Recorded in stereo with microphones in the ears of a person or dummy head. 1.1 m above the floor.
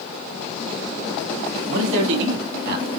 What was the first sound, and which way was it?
A man speaking, 80° right.